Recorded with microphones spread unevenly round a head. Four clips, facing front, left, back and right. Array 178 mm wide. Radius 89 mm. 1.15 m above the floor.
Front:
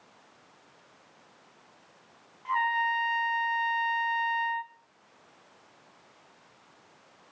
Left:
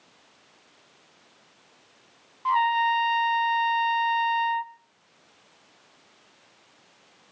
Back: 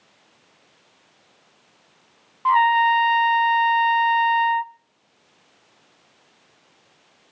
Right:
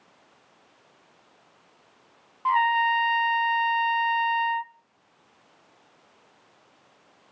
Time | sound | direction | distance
2.5 | a trumpet | 155° right | 0.6 m